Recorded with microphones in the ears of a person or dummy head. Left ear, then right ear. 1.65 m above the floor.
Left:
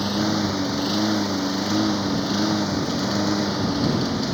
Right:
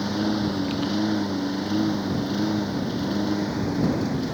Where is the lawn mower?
20° left (ahead or behind); by 4.3 s 35° left (ahead or behind).